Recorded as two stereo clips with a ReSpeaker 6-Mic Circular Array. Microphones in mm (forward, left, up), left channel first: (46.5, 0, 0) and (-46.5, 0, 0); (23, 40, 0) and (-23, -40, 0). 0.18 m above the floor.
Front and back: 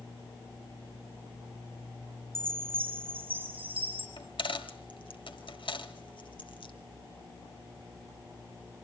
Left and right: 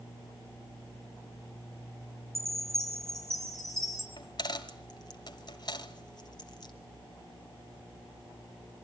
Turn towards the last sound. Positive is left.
turn(degrees=20)